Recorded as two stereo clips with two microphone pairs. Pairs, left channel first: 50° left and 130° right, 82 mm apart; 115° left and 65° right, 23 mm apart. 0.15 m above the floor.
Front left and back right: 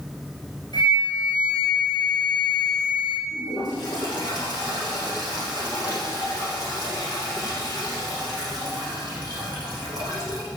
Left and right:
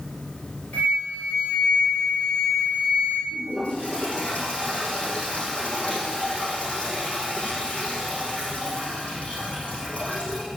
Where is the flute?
80° left, 3.5 m.